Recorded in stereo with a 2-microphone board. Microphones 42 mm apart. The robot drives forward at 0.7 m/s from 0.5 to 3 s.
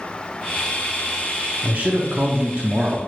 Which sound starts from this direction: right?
A man speaking, at 1.6 s.